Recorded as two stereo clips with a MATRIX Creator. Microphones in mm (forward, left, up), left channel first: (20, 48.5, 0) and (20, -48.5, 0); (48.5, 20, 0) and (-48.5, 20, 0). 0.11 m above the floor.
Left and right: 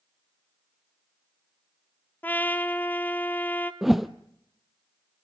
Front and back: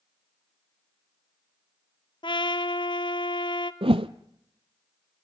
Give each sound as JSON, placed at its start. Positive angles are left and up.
{"t": 2.2, "sound": "a trumpet", "azimuth_deg": 20, "distance_m": 0.9}
{"t": 3.8, "sound": "a whoosh", "azimuth_deg": 180, "distance_m": 0.7}